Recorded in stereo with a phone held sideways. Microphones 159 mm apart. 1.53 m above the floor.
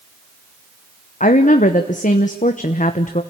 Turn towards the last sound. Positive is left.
turn(degrees=50)  # may be behind; listen again after turning